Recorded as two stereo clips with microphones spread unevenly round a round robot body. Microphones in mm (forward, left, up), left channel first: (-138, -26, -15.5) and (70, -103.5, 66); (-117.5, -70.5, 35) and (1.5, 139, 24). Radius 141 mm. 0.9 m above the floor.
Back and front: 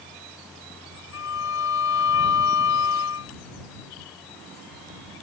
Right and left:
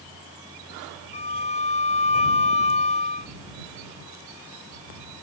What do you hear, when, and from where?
1.1 s a violin: straight behind